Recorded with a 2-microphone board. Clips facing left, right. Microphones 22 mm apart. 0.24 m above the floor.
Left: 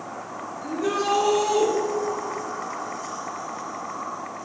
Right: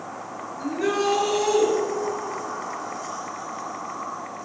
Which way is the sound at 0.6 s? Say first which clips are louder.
Right 2 dB; 70° right (ahead or behind).